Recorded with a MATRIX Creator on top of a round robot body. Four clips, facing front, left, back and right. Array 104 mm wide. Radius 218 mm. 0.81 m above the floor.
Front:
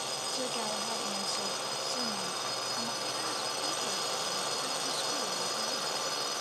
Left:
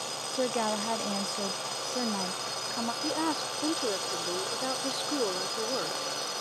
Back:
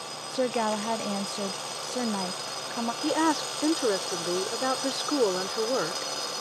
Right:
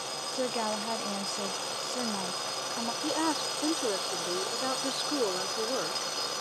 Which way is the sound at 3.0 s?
Straight behind.